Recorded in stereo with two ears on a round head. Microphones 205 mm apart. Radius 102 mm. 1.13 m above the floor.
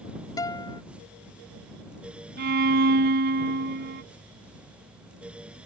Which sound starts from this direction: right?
A violin, at 2.4 s.